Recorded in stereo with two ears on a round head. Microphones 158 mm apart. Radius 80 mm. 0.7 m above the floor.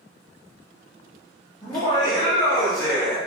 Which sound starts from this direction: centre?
Laughter, at 1.6 s.